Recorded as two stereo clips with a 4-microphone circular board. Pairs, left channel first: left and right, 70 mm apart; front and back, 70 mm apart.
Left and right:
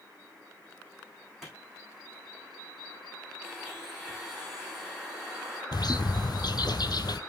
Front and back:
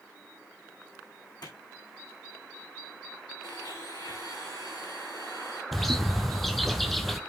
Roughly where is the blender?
Ahead.